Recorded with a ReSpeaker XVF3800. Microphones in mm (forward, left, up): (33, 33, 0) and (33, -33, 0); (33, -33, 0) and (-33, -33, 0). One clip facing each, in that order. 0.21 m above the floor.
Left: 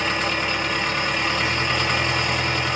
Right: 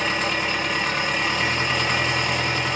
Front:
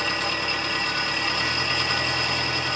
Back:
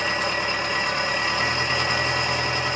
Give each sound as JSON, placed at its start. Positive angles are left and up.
{"t": 0.0, "sound": "an engine running", "azimuth_deg": -175, "distance_m": 0.9}